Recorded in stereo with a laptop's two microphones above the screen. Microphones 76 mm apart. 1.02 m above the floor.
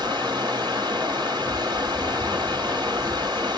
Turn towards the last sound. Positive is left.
turn(degrees=-75)  # may be behind; listen again after turning